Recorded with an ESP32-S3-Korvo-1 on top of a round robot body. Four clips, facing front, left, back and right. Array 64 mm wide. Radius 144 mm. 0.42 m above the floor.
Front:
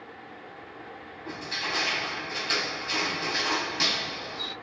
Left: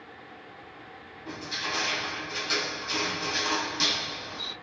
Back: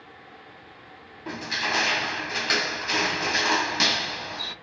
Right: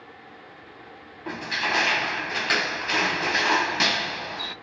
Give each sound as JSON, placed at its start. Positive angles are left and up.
{"t": 1.3, "sound": "crushing", "azimuth_deg": -115, "distance_m": 0.8}